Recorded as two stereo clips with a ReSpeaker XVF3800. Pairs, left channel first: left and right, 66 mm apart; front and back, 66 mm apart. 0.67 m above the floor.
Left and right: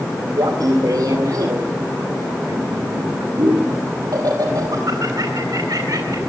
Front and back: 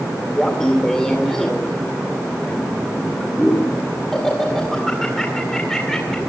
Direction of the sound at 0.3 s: 80° right.